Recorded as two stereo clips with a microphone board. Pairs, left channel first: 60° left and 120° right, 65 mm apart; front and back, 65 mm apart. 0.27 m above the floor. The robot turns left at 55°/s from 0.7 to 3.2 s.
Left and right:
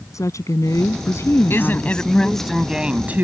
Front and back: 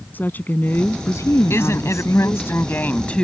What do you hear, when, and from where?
0.1 s a woman speaking: 55° left; by 2.5 s 45° right
1.5 s a woman speaking: 25° left; by 3.2 s 65° right